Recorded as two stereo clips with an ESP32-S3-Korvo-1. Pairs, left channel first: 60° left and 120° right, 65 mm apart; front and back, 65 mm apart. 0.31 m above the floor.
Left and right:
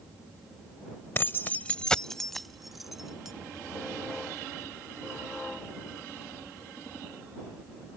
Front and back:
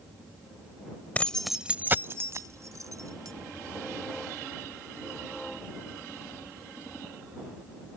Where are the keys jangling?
45° left; by 3.3 s 155° left.